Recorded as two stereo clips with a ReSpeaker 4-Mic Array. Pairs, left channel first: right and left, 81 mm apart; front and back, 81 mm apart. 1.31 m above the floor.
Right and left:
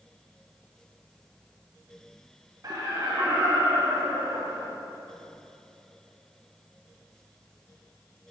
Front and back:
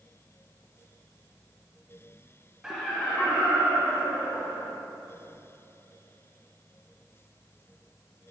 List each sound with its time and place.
2.6 s laughter: 100° left, 0.5 m; by 4.7 s 50° left, 1.6 m